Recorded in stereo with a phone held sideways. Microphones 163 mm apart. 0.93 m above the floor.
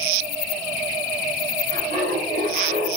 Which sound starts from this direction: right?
Laughter, at 1.7 s.